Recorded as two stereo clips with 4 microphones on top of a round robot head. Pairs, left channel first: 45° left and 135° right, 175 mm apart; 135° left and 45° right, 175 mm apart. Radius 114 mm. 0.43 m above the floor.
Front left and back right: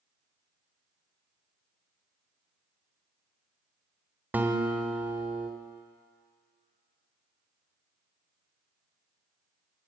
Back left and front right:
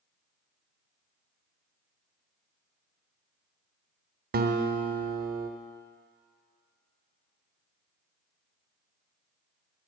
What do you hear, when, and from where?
4.3 s a guitar: 55° right, 1.1 m